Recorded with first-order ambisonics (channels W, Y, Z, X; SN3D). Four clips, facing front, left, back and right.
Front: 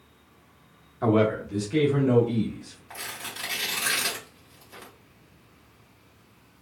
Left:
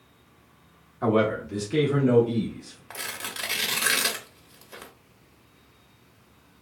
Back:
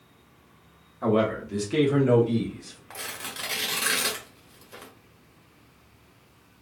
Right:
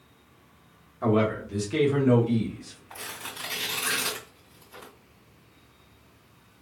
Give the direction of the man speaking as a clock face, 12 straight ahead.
11 o'clock.